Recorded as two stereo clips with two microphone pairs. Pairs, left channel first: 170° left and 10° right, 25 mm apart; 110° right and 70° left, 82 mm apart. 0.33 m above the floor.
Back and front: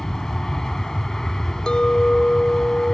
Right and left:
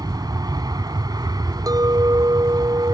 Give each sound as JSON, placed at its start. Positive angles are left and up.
{"t": 0.0, "sound": "an aircraft", "azimuth_deg": 95}
{"t": 1.7, "sound": "a clink", "azimuth_deg": 110}